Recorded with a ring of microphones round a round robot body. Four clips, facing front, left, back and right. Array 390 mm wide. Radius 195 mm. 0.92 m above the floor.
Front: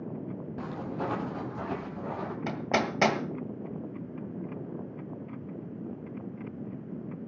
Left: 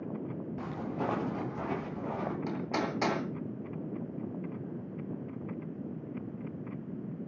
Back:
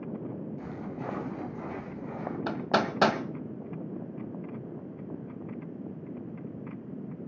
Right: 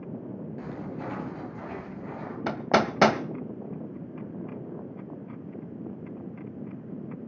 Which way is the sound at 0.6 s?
35° left.